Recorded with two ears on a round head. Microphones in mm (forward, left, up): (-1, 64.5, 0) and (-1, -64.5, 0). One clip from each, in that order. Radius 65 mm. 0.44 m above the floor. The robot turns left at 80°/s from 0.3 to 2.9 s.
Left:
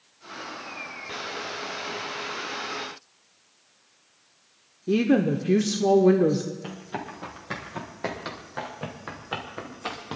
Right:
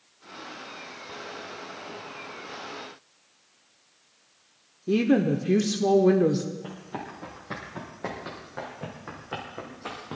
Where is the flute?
I don't hear a flute.